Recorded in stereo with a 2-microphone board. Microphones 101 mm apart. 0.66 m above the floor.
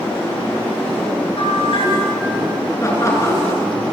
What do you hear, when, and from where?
1.4 s a bell: 60° left (ahead or behind), 9.5 m
2.8 s laughter: 30° left (ahead or behind), 7 m